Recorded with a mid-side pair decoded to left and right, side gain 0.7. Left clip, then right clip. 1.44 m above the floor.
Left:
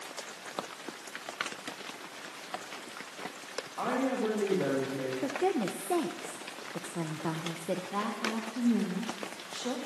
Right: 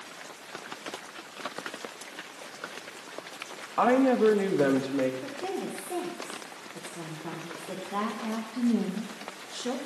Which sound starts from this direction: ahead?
A woman speaking, at 7.9 s.